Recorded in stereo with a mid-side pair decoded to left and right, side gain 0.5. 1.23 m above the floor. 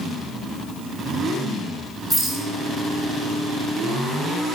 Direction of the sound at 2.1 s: 10° right.